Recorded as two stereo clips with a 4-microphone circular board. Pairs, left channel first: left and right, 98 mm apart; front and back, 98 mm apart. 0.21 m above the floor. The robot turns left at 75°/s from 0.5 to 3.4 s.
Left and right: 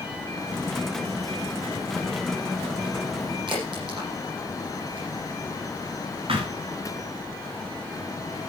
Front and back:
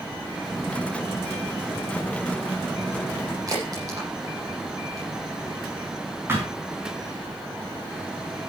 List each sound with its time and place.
3.5 s a crack: 125° right, 9.5 m
6.3 s a thud: 115° right, 6 m